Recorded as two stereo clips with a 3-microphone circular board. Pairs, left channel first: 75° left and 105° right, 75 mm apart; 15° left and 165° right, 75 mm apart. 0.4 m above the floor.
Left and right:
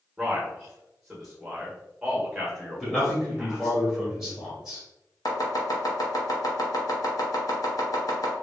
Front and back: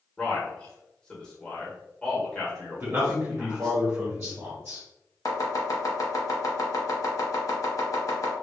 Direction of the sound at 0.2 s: 35° right.